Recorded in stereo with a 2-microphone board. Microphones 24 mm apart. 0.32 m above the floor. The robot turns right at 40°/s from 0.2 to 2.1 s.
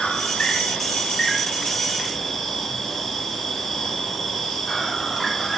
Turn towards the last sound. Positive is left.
turn(degrees=165)